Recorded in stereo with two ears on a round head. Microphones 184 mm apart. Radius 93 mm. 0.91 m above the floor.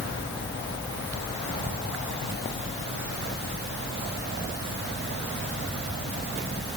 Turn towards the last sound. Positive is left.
No sound to turn to.